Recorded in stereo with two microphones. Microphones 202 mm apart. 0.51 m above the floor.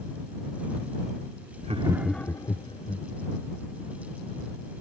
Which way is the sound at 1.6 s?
40° right (ahead or behind).